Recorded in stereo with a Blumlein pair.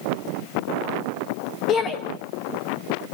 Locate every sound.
1.7 s a shout: 25° left, 1.7 m